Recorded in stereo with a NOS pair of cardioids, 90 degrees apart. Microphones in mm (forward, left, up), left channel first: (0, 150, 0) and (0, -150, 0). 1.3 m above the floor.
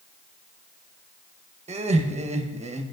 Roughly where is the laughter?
Ahead.